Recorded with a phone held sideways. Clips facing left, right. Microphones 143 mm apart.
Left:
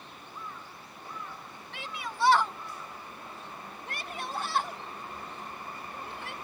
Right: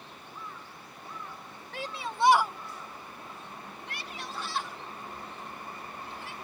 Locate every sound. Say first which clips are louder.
1.7 s a shout: right 3 dB; 40° right (ahead or behind); by 6.3 s 65° left (ahead or behind)